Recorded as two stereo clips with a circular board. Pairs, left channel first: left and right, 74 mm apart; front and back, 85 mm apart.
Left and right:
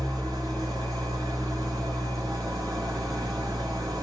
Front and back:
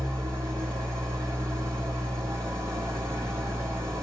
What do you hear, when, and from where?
0.0 s an engine running: 125° right, 1.4 m